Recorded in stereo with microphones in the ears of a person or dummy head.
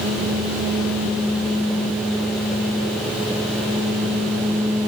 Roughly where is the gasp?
I don't hear a gasp.